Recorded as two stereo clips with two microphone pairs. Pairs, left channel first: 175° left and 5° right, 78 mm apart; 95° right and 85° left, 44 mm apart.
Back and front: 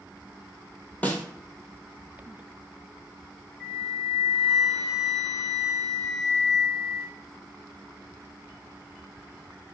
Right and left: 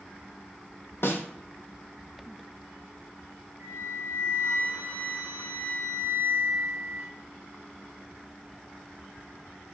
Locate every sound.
1.0 s a snare drum: 115° right, 0.6 m
3.6 s a flute: 85° left, 1.8 m